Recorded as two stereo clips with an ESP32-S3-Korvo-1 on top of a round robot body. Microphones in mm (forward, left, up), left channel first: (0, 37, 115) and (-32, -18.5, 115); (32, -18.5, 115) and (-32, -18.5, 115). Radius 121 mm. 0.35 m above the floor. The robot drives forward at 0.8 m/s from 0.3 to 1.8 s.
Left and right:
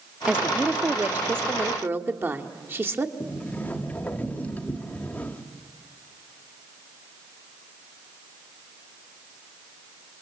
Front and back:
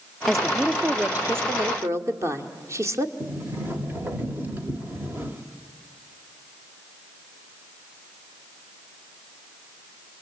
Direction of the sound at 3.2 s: 125° left.